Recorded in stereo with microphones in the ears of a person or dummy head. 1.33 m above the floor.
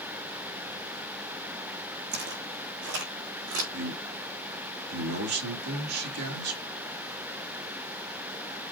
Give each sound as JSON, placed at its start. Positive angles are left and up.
{"t": 2.1, "sound": "footsteps", "side_deg": -50, "distance_m": 4.0}
{"t": 3.7, "sound": "a man speaking", "side_deg": -75, "distance_m": 2.5}